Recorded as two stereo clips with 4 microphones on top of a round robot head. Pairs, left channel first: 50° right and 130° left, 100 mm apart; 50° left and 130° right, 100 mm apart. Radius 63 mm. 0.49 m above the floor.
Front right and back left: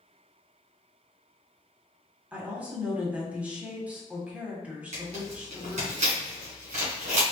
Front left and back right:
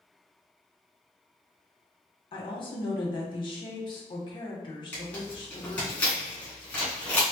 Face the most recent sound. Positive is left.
turn(degrees=125)